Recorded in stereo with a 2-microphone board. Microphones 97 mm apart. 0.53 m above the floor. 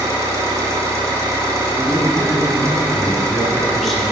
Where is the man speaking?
Centre (ahead or behind), 1.0 m.